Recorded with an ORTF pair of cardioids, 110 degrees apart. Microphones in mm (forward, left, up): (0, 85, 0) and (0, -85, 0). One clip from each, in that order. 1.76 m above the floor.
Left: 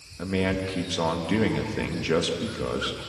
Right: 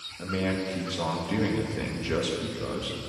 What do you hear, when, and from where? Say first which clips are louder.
0.2 s a man speaking: left 3 dB; 30° left, 3 m